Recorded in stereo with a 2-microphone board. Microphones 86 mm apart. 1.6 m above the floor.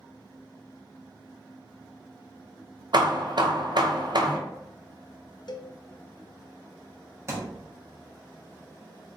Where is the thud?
35° right (ahead or behind), 1.1 m.